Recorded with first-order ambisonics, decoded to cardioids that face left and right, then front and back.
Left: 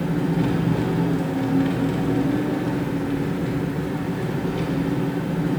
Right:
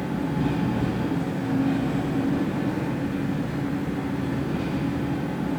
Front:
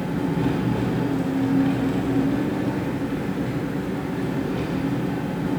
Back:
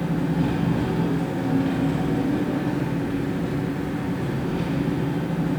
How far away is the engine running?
About 1.2 m.